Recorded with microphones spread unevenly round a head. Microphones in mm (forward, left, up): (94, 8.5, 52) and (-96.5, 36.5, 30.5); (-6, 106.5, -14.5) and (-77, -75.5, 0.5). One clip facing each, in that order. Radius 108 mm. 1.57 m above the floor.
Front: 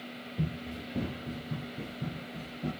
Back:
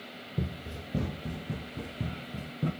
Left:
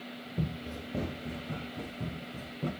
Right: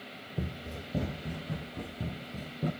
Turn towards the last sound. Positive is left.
turn(degrees=175)